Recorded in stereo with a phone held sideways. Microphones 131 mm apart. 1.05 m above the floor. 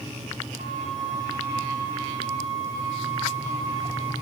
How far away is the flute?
About 6.5 m.